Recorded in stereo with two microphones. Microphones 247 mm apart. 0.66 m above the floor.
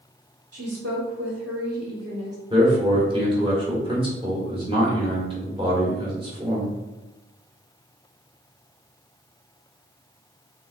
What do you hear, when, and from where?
0.5 s a woman speaking: 60° right (ahead or behind), 1.3 m
2.5 s a man speaking: 20° right (ahead or behind), 1.6 m